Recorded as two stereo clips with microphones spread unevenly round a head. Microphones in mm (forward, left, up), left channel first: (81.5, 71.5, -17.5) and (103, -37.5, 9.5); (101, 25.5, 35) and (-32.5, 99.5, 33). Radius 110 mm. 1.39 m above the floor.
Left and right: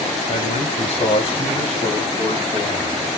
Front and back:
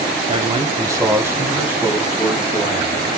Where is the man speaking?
95° left, 1.3 m; by 3.2 s 65° left, 3 m.